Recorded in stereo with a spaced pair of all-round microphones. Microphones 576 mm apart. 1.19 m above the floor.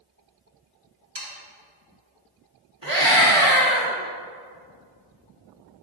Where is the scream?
60° right (ahead or behind), 1.9 m.